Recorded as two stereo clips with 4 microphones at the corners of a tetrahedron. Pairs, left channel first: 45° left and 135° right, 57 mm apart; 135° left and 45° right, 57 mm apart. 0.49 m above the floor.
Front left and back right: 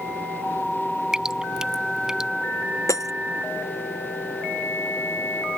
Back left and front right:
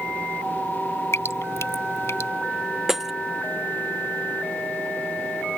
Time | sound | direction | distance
1.1 | dripping | 150° left | ?
2.9 | breaking glass | 40° left | ?